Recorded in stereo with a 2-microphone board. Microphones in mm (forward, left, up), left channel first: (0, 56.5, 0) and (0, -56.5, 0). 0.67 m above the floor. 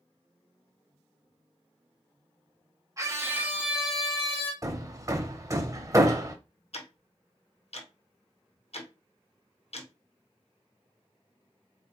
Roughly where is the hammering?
Right.